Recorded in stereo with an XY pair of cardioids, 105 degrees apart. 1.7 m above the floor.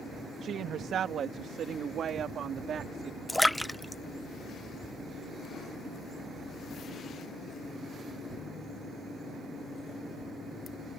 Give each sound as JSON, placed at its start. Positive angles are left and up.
{"t": 0.4, "sound": "a woman speaking", "azimuth_deg": -65}
{"t": 3.3, "sound": "a splash", "azimuth_deg": 0}